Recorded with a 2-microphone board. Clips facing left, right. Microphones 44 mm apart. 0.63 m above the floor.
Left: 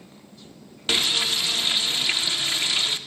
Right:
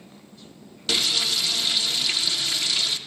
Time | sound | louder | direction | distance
0.9 | frying | left 1 dB | 35° left (ahead or behind) | 0.6 m